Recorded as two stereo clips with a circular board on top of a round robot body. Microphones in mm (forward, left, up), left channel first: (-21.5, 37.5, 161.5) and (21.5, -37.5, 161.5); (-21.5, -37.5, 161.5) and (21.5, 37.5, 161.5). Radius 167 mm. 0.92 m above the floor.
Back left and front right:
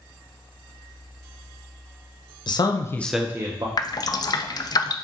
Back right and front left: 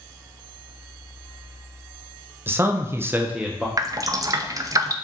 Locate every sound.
2.5 s a man speaking: 120° left, 0.8 m; by 3.7 s 25° right, 0.8 m
3.8 s dripping: 95° left, 0.5 m